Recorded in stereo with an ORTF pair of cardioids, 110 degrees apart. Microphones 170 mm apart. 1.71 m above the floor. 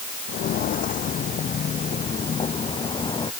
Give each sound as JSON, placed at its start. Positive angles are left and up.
{"t": 0.3, "sound": "footsteps", "azimuth_deg": 60}